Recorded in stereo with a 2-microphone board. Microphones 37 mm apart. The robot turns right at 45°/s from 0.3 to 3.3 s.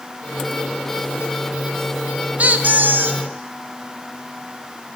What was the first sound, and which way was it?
A squeak, 135° right.